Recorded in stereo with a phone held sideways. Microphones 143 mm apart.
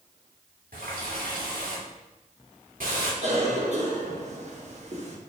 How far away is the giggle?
No giggle in this recording.